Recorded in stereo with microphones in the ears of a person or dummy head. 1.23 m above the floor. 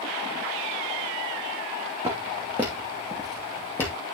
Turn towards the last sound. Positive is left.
turn(degrees=15)  # may be behind; listen again after turning